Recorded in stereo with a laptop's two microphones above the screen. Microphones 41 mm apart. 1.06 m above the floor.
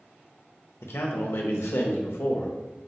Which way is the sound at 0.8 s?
75° left (ahead or behind).